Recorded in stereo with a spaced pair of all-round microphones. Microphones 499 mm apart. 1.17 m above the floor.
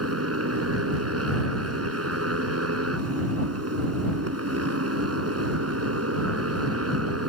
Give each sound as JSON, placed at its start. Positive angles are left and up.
{"t": 0.0, "sound": "a motorcycle", "side_deg": -25}